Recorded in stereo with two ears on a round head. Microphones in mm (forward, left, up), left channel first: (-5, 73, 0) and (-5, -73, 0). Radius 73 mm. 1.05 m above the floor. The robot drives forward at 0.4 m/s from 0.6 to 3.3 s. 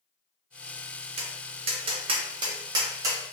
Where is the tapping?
35° right (ahead or behind), 0.5 m; by 3.2 s 20° right (ahead or behind), 0.9 m.